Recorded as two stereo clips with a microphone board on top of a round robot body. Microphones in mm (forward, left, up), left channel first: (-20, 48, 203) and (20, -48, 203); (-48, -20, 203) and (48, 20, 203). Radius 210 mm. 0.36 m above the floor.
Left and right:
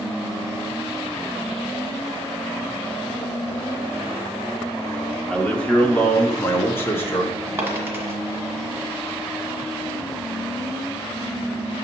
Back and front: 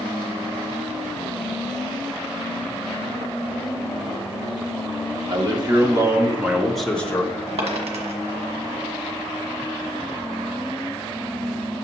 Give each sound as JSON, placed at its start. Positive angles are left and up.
{"t": 5.3, "sound": "a man speaking", "azimuth_deg": 35, "distance_m": 2.0}
{"t": 7.6, "sound": "a dropped coin", "azimuth_deg": 5, "distance_m": 1.5}